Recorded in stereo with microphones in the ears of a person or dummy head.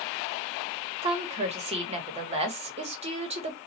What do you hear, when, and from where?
1.0 s a woman speaking: 35° right (ahead or behind), 1.1 m